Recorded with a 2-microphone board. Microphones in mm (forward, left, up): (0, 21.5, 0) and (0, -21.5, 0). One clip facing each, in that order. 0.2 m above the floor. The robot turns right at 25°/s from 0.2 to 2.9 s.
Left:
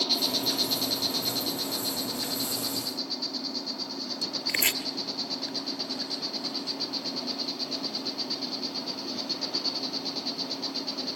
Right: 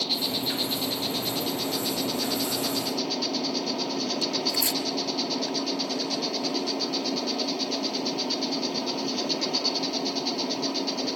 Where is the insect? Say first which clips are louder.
Even; 165° right, 0.8 m; by 11.2 s 100° right, 0.8 m.